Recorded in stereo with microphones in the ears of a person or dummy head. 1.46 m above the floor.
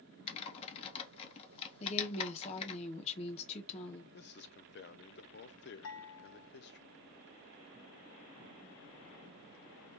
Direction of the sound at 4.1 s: 50° left (ahead or behind).